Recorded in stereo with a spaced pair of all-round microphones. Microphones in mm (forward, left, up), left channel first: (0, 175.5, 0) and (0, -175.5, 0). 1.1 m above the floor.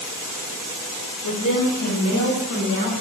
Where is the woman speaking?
70° left (ahead or behind), 1.0 m; by 2.9 s 30° left (ahead or behind), 2 m.